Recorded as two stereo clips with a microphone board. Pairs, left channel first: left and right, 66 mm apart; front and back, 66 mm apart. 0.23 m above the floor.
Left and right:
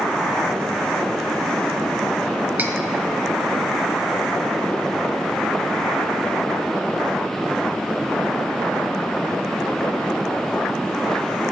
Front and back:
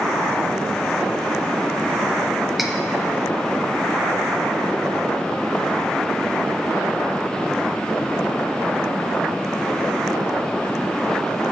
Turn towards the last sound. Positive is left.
turn(degrees=-95)